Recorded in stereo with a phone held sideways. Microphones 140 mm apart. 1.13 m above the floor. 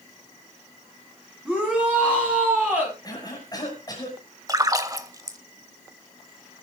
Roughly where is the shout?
Centre.